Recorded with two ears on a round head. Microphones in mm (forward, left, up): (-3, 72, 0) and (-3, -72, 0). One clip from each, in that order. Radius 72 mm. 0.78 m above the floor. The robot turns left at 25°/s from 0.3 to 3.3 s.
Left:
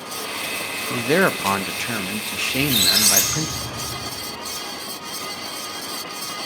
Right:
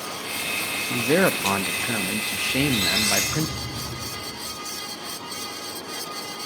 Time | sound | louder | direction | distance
0.9 | a man speaking | left 2 dB | 70° left | 0.7 m
2.5 | a squeak | left 5 dB | 65° left (ahead or behind) | 3.5 m